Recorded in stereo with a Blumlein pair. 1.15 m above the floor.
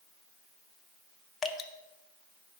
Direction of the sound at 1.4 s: 20° left.